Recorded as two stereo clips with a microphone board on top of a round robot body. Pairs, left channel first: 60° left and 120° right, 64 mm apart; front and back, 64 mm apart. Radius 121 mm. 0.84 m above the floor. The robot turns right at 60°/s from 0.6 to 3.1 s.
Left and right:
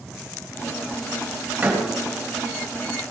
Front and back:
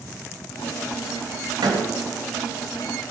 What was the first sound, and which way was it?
A door slam, 170° left.